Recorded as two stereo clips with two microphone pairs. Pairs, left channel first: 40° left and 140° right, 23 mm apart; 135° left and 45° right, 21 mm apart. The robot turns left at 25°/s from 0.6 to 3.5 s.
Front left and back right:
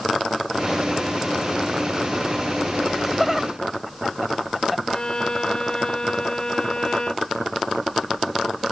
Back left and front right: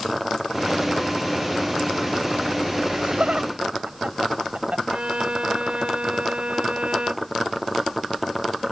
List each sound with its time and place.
2.9 s laughter: 40° right; by 5.9 s 55° right
4.9 s a violin: 10° right